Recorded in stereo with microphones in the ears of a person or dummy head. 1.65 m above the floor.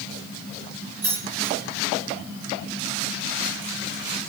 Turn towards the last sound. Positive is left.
turn(degrees=-20)  # may be behind; listen again after turning